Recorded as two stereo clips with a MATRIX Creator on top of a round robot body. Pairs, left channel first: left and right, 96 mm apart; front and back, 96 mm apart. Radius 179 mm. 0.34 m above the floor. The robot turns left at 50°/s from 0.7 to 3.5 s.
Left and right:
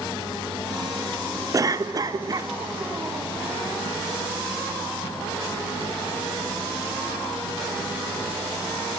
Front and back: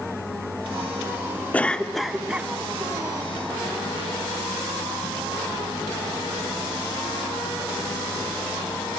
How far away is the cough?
About 1.3 m.